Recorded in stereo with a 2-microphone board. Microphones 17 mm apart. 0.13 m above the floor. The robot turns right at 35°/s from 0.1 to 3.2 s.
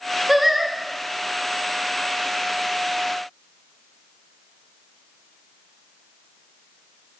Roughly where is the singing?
Centre.